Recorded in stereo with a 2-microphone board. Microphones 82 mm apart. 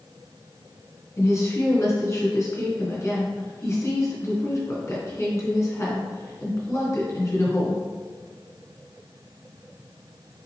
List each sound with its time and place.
1.2 s a woman speaking: 35° left (ahead or behind), 2.5 m